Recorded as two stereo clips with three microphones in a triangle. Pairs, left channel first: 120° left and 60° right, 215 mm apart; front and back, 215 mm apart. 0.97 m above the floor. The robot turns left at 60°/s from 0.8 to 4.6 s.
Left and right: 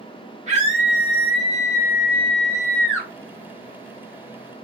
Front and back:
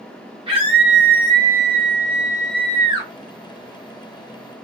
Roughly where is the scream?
Behind right.